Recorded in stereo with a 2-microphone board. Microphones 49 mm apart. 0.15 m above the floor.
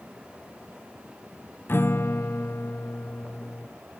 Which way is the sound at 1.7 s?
50° left (ahead or behind).